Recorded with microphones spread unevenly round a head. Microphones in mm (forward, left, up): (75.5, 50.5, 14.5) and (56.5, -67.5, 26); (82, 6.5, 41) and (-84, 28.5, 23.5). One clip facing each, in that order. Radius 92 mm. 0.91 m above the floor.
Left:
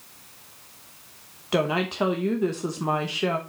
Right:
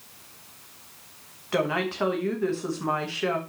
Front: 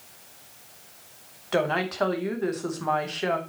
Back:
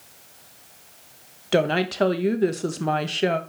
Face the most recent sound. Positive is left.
turn(degrees=145)